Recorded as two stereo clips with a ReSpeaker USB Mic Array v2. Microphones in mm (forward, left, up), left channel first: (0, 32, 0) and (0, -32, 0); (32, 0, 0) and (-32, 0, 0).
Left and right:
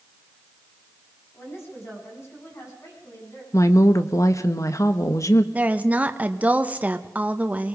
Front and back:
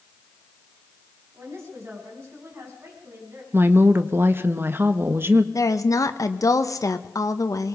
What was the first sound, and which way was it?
A woman speaking, 140° left.